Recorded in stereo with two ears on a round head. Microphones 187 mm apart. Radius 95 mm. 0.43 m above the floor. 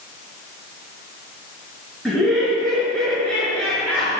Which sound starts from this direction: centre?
Laughter, at 2.0 s.